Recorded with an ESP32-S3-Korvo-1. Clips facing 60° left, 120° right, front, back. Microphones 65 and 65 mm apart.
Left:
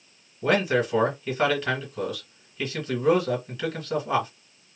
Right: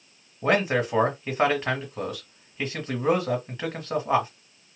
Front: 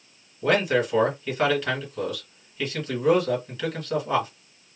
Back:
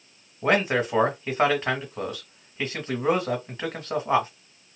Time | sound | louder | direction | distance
0.4 | a man speaking | even, front 1 dB | 150° right | 1.5 m